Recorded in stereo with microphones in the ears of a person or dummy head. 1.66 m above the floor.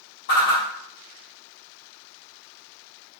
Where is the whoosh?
55° left (ahead or behind), 1.2 m.